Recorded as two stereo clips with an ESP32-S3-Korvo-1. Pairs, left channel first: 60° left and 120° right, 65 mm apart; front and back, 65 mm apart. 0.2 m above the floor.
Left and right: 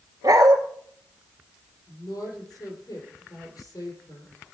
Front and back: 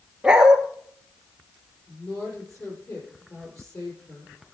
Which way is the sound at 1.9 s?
40° left.